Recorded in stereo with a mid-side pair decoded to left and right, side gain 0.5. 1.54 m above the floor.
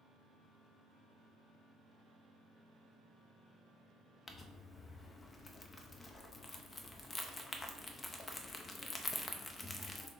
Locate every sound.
4.3 s crumpling: 30° left, 0.7 m